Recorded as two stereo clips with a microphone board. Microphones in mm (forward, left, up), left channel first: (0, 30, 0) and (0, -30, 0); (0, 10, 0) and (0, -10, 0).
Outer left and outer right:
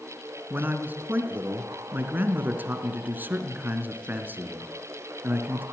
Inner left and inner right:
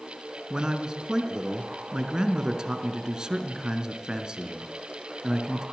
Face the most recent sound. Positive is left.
turn(degrees=-35)  # may be behind; listen again after turning